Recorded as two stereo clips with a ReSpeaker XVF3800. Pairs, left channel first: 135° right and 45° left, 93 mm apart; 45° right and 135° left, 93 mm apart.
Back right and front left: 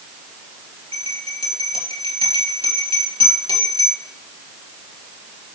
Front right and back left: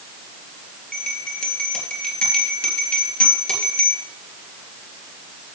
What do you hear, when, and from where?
0.9 s a bell: 30° left, 3 m